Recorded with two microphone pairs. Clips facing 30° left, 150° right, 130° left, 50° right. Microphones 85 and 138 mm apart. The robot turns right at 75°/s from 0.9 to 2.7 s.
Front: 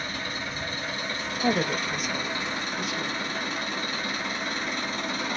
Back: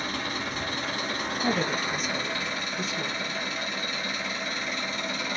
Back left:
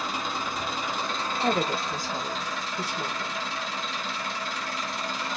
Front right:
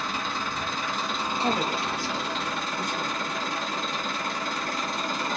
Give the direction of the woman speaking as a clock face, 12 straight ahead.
10 o'clock.